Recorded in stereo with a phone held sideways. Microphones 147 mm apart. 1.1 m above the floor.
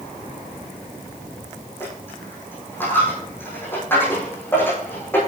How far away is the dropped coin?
About 7 m.